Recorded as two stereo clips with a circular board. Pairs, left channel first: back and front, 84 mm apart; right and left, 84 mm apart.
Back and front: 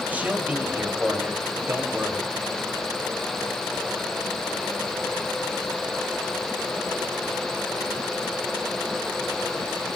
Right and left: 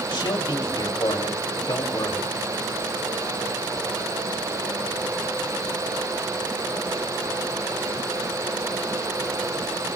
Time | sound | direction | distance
0.1 | a man speaking | 70° right | 3 m